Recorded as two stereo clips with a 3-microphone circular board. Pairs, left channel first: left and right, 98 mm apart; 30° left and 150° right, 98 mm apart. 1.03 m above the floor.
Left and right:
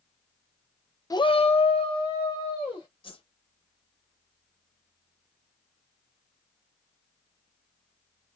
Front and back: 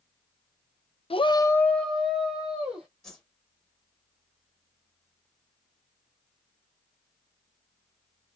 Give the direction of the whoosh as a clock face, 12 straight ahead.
8 o'clock.